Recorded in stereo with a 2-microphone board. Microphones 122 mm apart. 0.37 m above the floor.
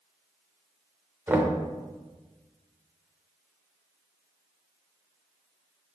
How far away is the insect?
I don't hear an insect.